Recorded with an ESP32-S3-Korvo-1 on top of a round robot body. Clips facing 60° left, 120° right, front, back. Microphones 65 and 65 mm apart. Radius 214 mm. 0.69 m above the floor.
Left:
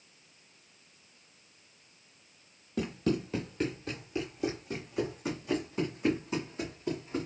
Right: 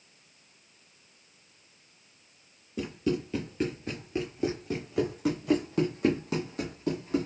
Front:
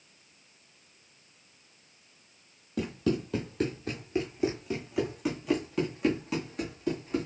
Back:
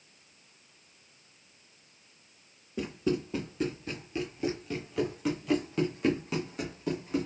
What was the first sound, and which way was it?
Running footsteps, 25° left.